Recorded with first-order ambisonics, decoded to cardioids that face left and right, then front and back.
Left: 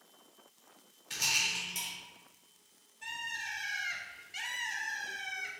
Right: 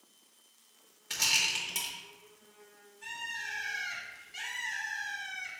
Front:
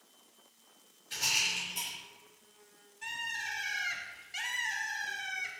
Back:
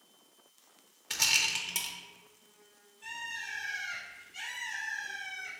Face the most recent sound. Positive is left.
turn(degrees=20)